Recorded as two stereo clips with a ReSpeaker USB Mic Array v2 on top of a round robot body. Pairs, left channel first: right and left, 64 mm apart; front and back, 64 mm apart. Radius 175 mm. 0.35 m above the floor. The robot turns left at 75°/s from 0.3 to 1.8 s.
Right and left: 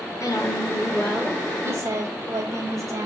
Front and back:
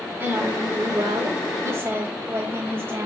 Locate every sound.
0.2 s a woman speaking: 120° right, 4 m; by 3.1 s 125° left, 4 m